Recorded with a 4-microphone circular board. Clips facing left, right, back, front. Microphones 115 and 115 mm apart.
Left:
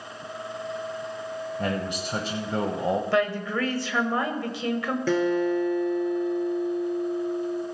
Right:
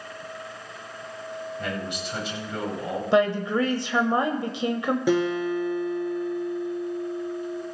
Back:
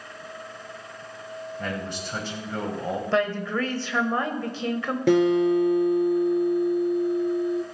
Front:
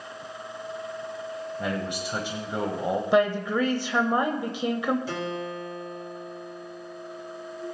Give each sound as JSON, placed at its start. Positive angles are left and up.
{"t": 1.6, "sound": "a man speaking", "azimuth_deg": 70, "distance_m": 1.2}
{"t": 3.1, "sound": "a woman speaking", "azimuth_deg": -55, "distance_m": 0.9}
{"t": 5.1, "sound": "a guitar", "azimuth_deg": -165, "distance_m": 2.0}